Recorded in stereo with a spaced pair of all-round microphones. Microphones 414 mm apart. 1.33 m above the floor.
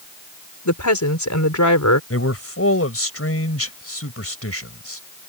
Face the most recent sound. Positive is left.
turn(degrees=35)  # may be behind; listen again after turning